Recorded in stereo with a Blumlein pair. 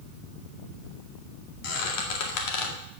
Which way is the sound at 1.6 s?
45° left.